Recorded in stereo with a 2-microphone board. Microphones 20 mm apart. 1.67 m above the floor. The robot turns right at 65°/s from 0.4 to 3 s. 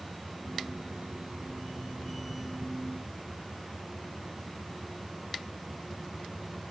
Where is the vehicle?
175° right; by 6.7 s 5° right.